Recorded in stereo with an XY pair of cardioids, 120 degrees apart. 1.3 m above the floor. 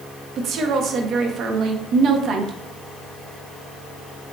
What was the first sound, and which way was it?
A woman speaking, 60° right.